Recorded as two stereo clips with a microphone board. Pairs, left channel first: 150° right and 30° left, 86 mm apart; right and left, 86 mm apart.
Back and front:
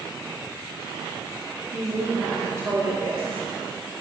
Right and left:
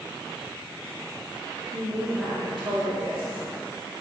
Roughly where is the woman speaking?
Ahead left.